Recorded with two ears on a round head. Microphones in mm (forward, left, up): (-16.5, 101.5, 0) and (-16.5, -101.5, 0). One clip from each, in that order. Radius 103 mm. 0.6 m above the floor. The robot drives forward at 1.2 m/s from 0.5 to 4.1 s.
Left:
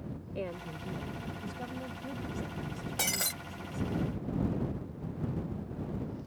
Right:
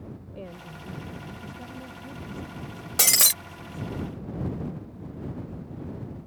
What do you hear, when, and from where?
0.3 s a woman speaking: 45° left (ahead or behind); by 4.0 s 15° left (ahead or behind)
3.0 s breaking glass: 45° right (ahead or behind); by 3.3 s 65° right (ahead or behind)